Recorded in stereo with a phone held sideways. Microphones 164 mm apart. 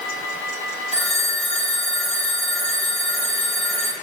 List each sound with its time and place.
0.9 s a phone ringing: 40° left (ahead or behind), 4 m